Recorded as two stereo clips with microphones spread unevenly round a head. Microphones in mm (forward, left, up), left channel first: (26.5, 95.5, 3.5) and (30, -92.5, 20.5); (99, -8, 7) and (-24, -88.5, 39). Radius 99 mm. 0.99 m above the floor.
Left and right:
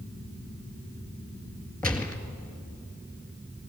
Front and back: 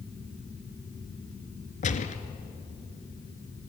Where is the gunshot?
10° left, 1.9 m.